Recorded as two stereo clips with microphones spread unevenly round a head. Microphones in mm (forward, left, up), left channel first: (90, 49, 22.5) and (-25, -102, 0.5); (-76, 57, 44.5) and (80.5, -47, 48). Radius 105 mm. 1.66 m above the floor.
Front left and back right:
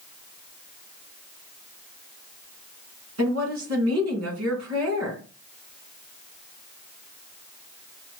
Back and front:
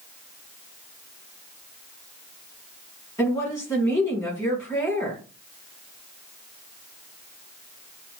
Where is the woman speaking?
140° right, 2.5 m.